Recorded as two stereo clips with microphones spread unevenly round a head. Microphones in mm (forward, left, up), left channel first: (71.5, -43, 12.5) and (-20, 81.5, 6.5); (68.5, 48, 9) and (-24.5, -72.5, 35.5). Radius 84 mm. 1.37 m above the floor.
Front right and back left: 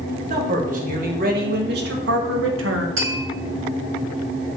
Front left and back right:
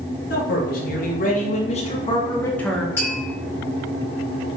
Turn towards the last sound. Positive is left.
turn(degrees=130)